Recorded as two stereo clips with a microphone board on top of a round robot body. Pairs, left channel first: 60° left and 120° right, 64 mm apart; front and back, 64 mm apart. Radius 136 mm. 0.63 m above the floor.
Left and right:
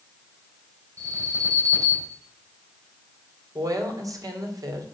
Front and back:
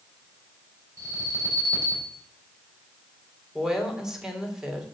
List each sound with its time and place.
1.0 s an alarm: 160° right, 5 m
3.5 s a woman speaking: 100° right, 3 m